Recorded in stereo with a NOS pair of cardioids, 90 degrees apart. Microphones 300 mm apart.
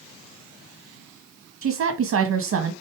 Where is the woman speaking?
60° right, 1.5 m.